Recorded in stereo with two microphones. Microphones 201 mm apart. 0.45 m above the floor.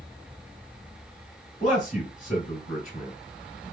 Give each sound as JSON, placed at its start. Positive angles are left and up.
{"t": 1.6, "sound": "a man speaking", "side_deg": 40, "distance_m": 1.7}